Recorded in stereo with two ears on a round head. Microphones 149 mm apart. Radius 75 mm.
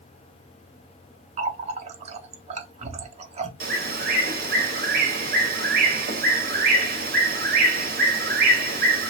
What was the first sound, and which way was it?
A running tap, 40° right (ahead or behind).